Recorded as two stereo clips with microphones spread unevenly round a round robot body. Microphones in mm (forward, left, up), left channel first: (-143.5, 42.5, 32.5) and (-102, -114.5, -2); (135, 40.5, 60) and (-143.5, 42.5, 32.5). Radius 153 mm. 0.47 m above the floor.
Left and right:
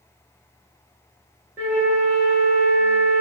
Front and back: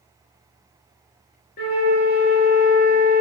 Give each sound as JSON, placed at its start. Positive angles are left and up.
{"t": 1.6, "sound": "a flute", "azimuth_deg": -40, "distance_m": 0.9}